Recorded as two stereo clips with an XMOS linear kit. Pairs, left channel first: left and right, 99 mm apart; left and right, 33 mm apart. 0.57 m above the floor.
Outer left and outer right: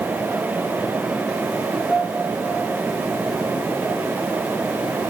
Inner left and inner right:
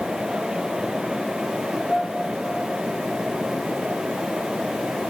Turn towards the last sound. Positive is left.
turn(degrees=5)  # may be behind; listen again after turning